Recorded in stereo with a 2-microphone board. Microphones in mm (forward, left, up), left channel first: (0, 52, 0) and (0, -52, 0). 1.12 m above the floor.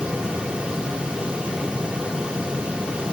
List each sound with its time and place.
Only background noise.